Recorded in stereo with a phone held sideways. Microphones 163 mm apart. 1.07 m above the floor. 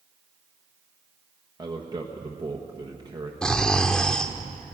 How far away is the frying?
I don't hear frying.